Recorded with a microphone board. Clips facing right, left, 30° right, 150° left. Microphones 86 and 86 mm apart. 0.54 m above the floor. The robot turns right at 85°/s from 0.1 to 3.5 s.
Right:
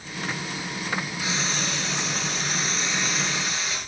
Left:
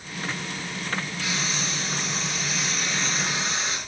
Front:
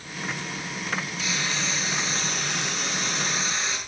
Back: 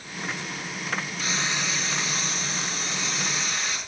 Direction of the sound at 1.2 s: 165° right.